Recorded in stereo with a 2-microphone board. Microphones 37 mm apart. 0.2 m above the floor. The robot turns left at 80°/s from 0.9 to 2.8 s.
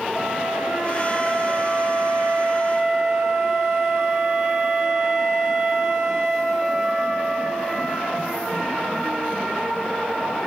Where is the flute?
15° right, 5.5 m; by 8.3 s 165° right, 5.5 m.